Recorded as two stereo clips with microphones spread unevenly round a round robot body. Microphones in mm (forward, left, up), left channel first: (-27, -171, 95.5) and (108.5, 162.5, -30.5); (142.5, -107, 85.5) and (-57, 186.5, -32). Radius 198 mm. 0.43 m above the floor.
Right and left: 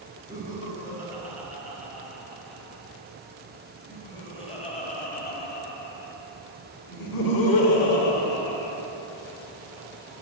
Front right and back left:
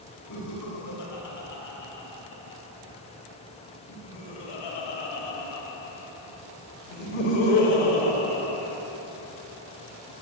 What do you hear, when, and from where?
0.3 s laughter: 10° right, 5.5 m; by 8.8 s 105° right, 2.5 m